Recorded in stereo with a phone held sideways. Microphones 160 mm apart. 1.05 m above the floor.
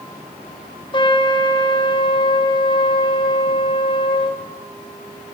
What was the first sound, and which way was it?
A trumpet, 30° left (ahead or behind).